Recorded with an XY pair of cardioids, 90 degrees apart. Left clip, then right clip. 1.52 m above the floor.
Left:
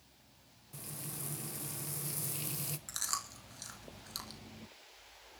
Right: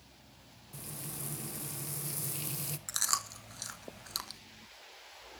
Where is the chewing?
45° right, 1.5 m.